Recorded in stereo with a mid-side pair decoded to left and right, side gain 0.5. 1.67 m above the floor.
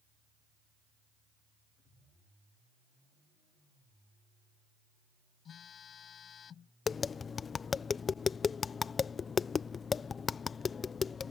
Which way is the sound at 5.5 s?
55° left.